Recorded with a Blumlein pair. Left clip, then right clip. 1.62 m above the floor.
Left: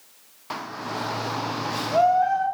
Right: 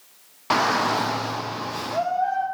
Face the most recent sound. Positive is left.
turn(degrees=30)